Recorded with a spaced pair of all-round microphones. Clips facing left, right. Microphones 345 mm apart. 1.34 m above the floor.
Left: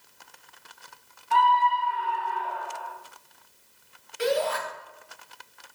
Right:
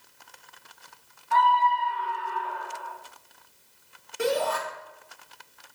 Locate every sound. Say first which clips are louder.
1.3 s a scream: even; 45° left (ahead or behind), 0.9 m; by 2.9 s 25° right (ahead or behind), 2 m
4.2 s a shout: even; 60° right (ahead or behind), 3 m